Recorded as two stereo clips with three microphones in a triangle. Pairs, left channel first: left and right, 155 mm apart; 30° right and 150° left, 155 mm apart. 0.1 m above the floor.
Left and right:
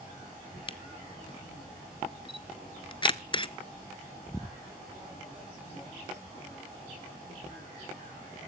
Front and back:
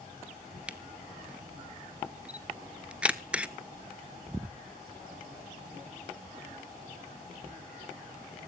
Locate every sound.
0.7 s a camera shutter: 75° left, 0.6 m